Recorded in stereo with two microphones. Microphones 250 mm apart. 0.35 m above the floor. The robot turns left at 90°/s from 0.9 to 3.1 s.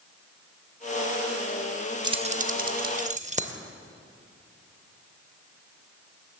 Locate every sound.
2.0 s keys jangling: 15° right (ahead or behind), 0.6 m; by 3.6 s 25° right (ahead or behind), 0.6 m